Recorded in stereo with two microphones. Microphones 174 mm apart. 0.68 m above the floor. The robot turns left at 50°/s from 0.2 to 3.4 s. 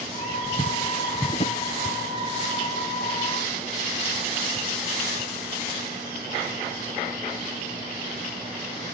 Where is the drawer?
40° left (ahead or behind); by 1.6 s 55° left (ahead or behind).